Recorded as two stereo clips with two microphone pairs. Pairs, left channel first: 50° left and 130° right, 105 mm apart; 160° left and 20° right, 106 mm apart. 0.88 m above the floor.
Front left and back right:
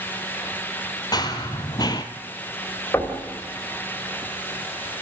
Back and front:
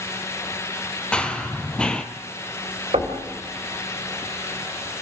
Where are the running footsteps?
85° left, 1.3 m.